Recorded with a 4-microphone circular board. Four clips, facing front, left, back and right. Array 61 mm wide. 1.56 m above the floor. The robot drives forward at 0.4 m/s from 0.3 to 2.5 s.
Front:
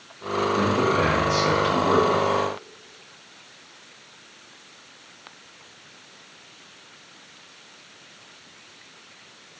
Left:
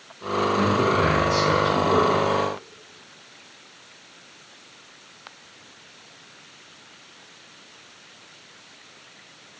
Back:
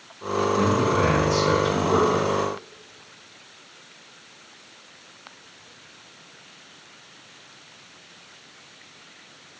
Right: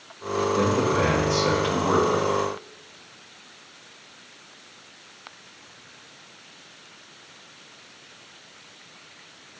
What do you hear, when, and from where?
0.6 s a man speaking: 30° right, 3 m; by 2.2 s 35° right, 2.5 m